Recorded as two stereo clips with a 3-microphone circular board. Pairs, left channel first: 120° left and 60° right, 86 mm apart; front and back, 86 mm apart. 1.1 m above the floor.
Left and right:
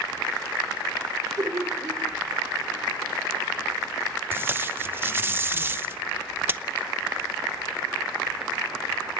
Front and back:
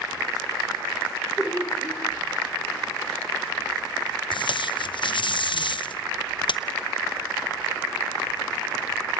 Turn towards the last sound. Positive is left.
turn(degrees=5)